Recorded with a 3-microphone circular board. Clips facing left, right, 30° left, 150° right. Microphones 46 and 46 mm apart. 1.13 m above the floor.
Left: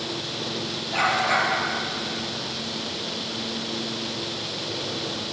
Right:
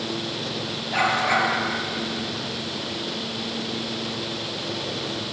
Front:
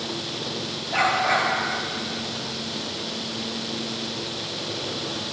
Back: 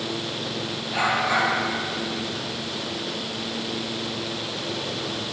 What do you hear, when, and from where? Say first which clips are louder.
0.9 s a dog barking: right 1 dB, front 1 dB; 40° right, 6.5 m